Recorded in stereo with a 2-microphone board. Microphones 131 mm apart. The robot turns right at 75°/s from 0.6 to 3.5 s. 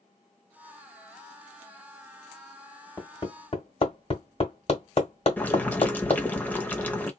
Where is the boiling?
15° left (ahead or behind), 0.9 m.